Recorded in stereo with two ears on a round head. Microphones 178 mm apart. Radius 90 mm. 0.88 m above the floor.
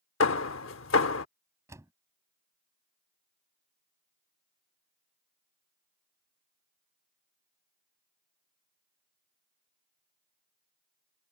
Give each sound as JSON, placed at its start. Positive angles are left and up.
{"t": 0.2, "sound": "hammering", "side_deg": 70}
{"t": 1.7, "sound": "a door slam", "side_deg": -15}